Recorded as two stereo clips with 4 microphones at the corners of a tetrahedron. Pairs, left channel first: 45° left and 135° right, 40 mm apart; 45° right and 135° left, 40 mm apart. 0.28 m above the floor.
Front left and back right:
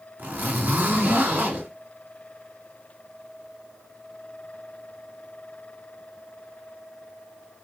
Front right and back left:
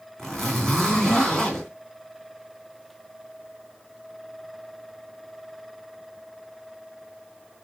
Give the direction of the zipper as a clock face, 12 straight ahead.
4 o'clock.